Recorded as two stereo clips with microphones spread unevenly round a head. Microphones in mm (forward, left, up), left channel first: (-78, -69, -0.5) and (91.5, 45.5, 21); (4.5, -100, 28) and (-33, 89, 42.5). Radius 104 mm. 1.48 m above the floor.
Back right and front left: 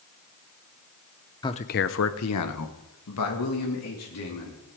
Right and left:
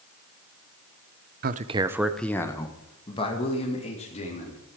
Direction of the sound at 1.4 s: 140° left.